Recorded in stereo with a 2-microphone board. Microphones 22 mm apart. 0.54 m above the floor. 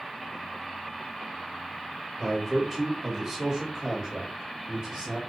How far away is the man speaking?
About 1.5 m.